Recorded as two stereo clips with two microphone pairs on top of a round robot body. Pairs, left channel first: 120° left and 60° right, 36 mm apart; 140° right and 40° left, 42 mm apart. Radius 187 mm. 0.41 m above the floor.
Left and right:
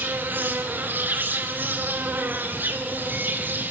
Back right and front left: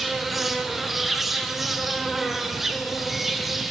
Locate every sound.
0.0 s an insect: 40° right, 3 m